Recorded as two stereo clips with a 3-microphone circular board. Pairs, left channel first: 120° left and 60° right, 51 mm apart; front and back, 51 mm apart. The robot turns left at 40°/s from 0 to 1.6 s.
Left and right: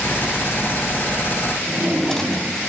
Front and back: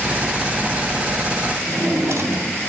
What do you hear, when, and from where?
1.7 s a drawer: 160° right, 2.5 m